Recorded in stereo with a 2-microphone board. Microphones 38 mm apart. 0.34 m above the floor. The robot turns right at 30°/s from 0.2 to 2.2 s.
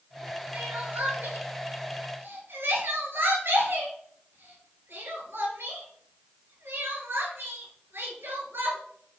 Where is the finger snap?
No finger snap in this recording.